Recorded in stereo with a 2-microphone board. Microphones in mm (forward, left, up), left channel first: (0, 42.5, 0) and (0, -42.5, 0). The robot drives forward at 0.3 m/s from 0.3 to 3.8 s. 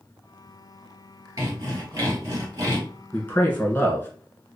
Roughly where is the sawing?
Right.